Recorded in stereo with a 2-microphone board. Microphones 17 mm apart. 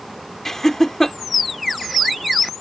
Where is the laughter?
30° left (ahead or behind).